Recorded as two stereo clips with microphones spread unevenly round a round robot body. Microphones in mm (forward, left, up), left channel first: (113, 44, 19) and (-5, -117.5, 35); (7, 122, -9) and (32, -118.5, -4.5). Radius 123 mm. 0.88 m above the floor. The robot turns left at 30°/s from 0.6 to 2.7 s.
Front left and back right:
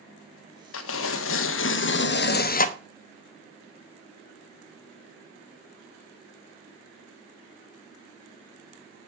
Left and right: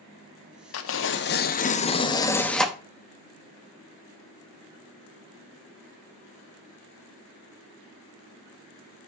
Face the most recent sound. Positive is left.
turn(degrees=5)